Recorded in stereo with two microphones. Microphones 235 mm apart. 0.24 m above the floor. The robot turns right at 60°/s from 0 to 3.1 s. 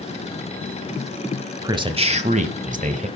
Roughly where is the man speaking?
Behind right.